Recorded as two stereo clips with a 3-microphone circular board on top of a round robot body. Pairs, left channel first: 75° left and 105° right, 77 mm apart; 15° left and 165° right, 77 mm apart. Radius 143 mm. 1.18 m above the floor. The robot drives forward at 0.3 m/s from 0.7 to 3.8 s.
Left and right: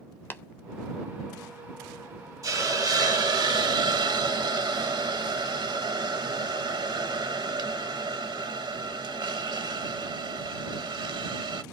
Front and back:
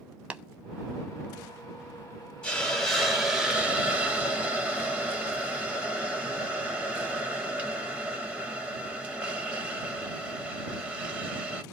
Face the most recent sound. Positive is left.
turn(degrees=-90)